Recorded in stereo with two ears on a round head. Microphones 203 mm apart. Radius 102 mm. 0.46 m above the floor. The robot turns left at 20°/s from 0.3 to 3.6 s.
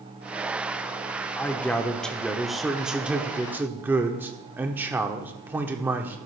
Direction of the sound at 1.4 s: 10° left (ahead or behind).